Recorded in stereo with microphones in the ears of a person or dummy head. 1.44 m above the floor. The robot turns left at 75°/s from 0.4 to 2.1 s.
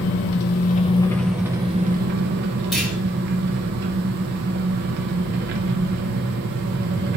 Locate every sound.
0.0 s an engine running: 65° left, 0.9 m; by 7.2 s 60° right, 0.9 m
2.7 s a clunk: centre (ahead or behind), 2.5 m